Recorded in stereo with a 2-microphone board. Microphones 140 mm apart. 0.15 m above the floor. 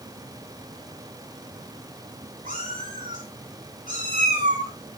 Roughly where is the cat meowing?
Right.